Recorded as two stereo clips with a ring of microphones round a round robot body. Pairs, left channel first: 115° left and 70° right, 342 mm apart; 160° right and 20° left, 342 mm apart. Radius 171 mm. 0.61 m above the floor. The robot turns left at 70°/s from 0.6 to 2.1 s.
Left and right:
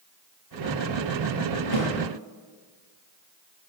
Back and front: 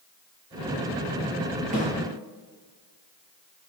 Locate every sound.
1.7 s a snare drum: 90° left, 8 m; by 1.9 s 80° left, 8 m